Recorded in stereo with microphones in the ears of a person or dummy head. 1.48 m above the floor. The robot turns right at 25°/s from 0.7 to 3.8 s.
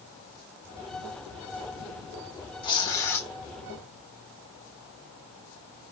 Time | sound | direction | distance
2.6 | tearing paper | 30° left (ahead or behind) | 1.2 m